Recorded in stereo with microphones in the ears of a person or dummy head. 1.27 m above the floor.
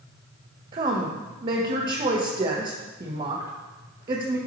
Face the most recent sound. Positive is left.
turn(degrees=-30)  # may be behind; listen again after turning